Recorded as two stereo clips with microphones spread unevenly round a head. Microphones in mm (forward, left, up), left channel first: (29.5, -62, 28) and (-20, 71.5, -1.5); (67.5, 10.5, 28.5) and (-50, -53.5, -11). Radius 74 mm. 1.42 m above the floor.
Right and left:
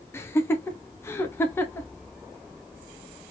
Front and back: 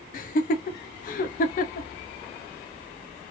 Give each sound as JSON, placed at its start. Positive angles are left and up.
{"t": 0.1, "sound": "laughter", "azimuth_deg": 10, "distance_m": 0.6}